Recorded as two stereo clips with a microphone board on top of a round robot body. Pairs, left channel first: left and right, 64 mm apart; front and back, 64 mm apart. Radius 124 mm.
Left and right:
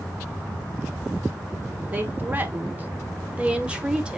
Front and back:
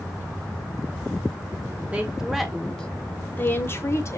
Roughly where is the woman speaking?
Behind right.